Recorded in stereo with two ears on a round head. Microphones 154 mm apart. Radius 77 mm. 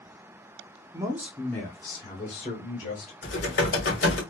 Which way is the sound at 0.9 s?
20° right (ahead or behind).